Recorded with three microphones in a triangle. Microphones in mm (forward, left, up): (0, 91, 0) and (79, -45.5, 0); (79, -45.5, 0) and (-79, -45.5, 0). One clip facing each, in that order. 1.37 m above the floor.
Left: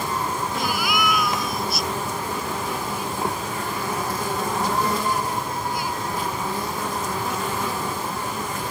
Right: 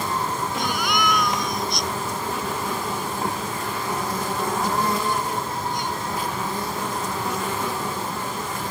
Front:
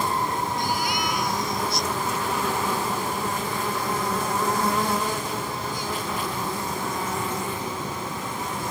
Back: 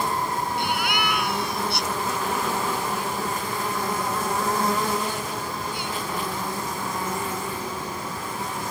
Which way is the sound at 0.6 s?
155° right.